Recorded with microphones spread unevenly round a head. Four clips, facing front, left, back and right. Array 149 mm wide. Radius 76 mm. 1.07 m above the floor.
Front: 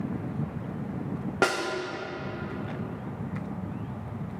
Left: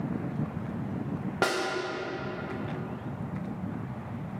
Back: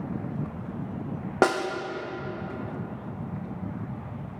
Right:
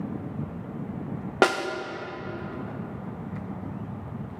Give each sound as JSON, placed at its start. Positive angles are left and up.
{"t": 1.4, "sound": "a snare drum", "azimuth_deg": -115, "distance_m": 0.9}